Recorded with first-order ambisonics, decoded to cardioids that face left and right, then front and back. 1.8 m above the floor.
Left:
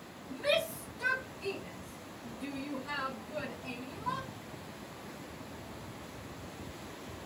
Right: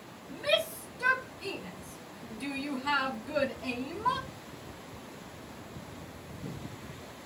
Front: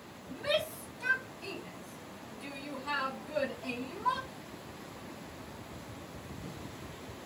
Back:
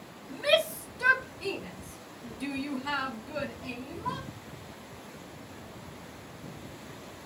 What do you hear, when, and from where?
0.3 s a shout: 175° right, 1.6 m; by 4.3 s 85° right, 1.2 m